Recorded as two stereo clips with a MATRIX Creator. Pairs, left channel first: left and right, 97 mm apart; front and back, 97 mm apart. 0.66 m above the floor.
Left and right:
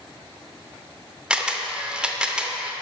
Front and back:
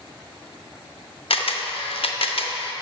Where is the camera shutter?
10° right, 0.6 m.